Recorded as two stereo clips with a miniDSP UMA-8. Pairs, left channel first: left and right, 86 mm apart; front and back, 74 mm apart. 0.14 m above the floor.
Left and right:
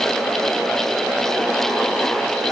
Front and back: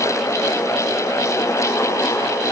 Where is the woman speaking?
I don't hear a woman speaking.